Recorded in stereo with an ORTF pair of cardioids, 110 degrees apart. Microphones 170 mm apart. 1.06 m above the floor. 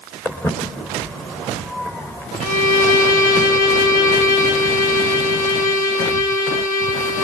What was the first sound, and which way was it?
Footsteps, 10° left.